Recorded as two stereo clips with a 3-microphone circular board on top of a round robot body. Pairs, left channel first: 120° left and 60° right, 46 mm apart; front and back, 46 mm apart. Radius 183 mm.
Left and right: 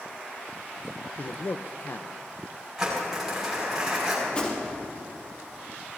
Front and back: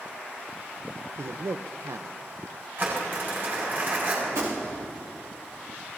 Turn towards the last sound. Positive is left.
turn(degrees=-175)